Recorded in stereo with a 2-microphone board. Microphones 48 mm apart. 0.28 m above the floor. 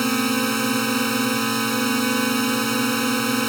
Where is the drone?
5° left (ahead or behind).